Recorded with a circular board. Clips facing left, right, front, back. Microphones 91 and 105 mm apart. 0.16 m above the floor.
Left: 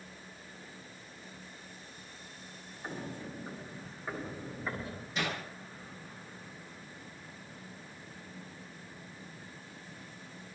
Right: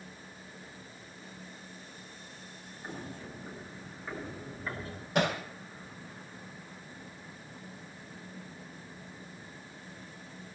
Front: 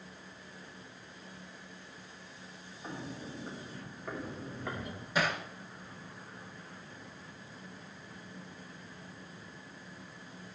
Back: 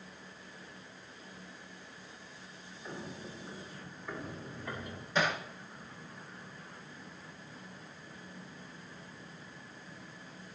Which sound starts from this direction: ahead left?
Footsteps, at 2.8 s.